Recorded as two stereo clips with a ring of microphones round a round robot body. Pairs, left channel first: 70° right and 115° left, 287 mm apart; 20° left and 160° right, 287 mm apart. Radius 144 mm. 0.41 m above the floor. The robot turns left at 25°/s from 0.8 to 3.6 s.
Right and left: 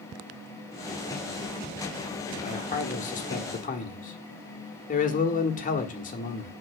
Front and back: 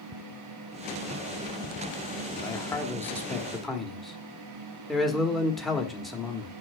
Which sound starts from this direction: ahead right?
A man speaking, at 2.4 s.